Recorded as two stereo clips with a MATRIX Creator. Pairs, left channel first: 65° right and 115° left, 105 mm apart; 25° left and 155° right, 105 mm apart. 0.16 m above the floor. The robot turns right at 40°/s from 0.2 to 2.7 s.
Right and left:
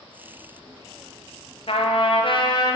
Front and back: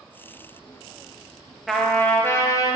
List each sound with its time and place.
1.7 s a trumpet: 70° right, 2 m; by 2.8 s 25° right, 2 m